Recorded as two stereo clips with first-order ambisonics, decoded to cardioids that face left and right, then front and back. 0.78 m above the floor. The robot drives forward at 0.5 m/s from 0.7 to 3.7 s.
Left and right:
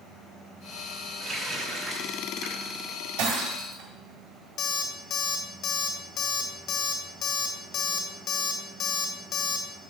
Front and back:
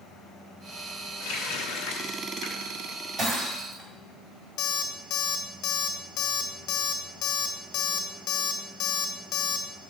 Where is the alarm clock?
40° left, 1.3 m.